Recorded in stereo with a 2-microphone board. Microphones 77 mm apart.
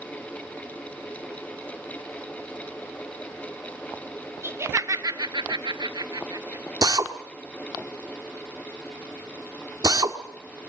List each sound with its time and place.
4.4 s laughter: 30° right (ahead or behind), 1.7 m; by 6.7 s 45° right (ahead or behind), 1.7 m
6.8 s a drill: 55° right (ahead or behind), 1.5 m